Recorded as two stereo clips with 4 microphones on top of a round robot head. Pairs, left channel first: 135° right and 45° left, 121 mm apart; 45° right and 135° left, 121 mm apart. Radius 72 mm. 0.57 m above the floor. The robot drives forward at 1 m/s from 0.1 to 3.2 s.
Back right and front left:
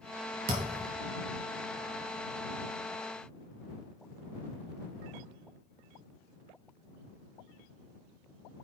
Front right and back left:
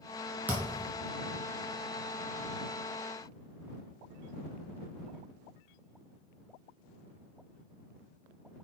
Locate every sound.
0.5 s a thud: 55° left, 2 m; by 0.9 s 65° left, 1.9 m